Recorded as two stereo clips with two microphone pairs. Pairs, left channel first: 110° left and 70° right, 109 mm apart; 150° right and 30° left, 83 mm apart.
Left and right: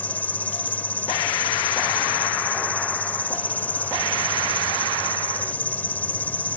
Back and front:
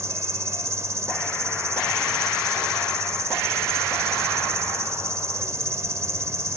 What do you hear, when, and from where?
0.0 s an insect: 45° left